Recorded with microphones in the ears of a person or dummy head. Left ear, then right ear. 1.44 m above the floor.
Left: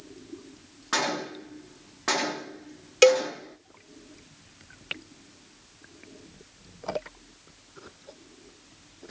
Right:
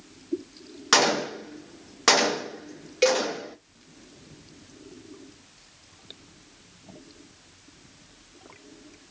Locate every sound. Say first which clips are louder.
0.9 s a gunshot: right 7 dB; 80° right, 0.7 m
3.0 s a cowbell: left 4 dB; 40° left (ahead or behind), 0.8 m